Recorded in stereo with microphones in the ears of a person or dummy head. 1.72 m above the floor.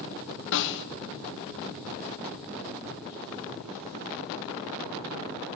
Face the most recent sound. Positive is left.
turn(degrees=65)  # may be behind; listen again after turning